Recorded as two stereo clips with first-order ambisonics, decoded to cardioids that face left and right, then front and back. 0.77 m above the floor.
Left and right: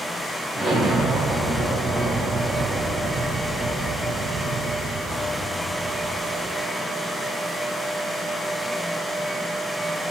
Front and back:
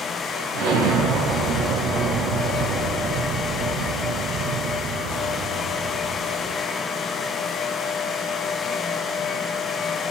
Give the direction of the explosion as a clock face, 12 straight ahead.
6 o'clock.